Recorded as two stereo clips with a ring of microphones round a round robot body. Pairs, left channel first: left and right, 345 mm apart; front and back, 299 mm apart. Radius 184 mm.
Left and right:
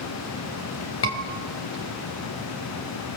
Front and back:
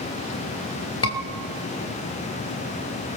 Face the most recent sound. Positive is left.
turn(degrees=40)